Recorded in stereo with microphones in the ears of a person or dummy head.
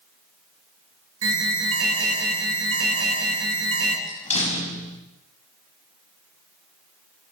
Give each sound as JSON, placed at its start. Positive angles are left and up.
{"t": 1.2, "sound": "an alarm", "side_deg": -80, "distance_m": 7.0}
{"t": 4.1, "sound": "a door slam", "side_deg": 40, "distance_m": 5.0}